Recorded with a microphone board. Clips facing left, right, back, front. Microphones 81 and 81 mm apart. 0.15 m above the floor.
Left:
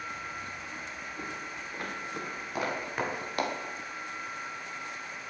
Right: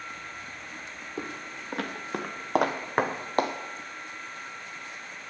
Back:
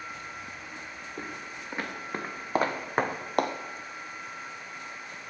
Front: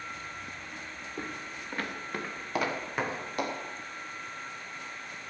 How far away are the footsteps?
About 2.0 m.